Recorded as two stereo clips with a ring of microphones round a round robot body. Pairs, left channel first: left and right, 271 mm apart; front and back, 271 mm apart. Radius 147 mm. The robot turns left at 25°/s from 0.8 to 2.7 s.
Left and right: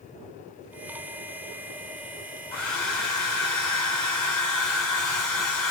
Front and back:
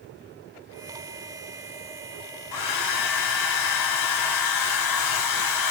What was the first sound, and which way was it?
A hair dryer, 5° left.